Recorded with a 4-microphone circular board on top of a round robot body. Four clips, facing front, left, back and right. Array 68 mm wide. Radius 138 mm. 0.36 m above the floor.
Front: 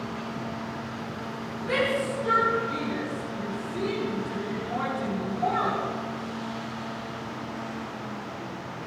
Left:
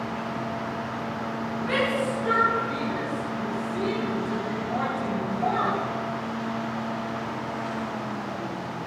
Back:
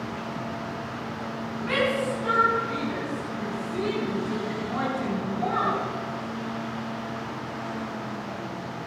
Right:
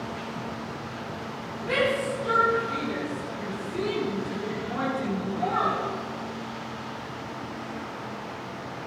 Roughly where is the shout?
Behind.